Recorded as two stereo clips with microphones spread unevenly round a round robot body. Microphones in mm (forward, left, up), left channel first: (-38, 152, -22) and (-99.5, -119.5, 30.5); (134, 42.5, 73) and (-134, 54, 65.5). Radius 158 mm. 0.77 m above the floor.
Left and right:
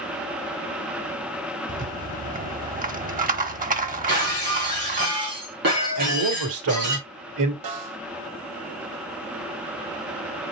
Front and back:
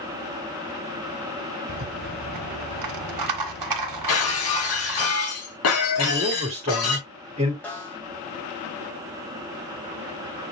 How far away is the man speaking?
About 2.5 m.